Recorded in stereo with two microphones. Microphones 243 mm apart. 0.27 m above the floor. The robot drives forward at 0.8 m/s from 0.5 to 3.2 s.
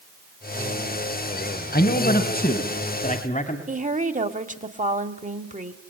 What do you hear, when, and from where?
1.7 s a man speaking: 45° left (ahead or behind), 1.7 m; by 3.6 s 35° left (ahead or behind), 2 m
3.7 s a woman speaking: 35° right (ahead or behind), 1.3 m